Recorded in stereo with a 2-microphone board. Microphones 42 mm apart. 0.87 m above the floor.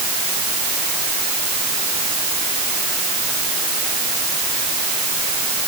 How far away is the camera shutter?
I don't hear a camera shutter.